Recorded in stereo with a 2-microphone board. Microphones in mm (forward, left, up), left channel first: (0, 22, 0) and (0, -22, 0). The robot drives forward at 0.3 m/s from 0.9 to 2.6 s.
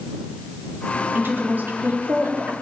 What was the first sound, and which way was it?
A woman speaking, 50° right (ahead or behind).